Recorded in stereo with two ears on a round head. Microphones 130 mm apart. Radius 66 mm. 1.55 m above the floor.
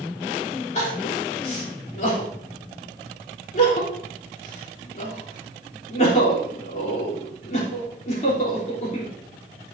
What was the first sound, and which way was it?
Crying, 55° left (ahead or behind).